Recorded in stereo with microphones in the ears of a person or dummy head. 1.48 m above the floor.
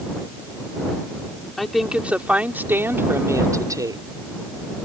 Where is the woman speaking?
Centre (ahead or behind); by 4.0 s 20° right (ahead or behind).